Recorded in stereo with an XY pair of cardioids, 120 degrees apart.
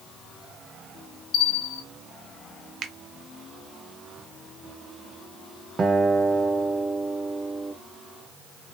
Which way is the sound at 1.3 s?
55° left.